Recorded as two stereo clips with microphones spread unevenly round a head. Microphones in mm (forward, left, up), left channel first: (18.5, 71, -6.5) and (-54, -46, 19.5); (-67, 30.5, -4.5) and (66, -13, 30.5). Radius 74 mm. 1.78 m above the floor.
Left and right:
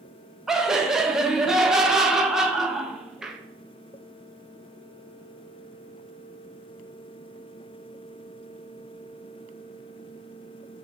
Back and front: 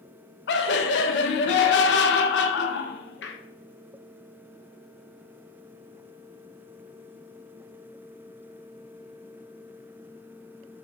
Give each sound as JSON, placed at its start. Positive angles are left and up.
{"t": 0.5, "sound": "laughter", "azimuth_deg": 155, "distance_m": 0.6}